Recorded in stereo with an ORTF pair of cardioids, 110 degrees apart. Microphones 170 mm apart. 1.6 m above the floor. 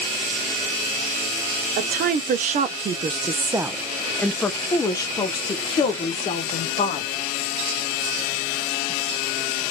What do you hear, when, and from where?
1.8 s a woman speaking: 70° right, 1.2 m; by 7.1 s 40° left, 2 m